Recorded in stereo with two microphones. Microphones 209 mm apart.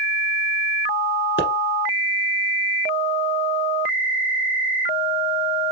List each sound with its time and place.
1.4 s a pop: 70° left (ahead or behind), 1.3 m